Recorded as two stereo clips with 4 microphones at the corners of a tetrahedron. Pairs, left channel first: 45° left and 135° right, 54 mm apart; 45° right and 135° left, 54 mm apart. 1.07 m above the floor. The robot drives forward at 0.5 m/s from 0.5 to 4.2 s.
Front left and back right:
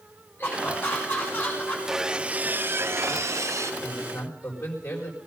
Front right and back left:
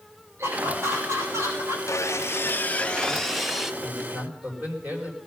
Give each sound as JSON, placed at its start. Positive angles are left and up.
{"t": 0.4, "sound": "laughter", "azimuth_deg": 95, "distance_m": 7.0}
{"t": 1.9, "sound": "sawing", "azimuth_deg": -50, "distance_m": 0.6}
{"t": 3.8, "sound": "a man speaking", "azimuth_deg": 70, "distance_m": 4.5}